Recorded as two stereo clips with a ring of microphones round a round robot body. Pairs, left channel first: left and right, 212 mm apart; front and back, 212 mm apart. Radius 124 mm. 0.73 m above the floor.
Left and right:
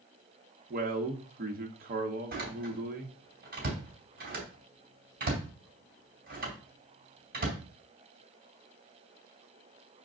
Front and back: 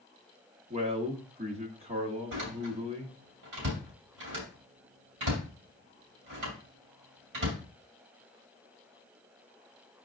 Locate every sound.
0.7 s a man speaking: 125° right, 1.3 m
2.3 s a door slam: 135° right, 3 m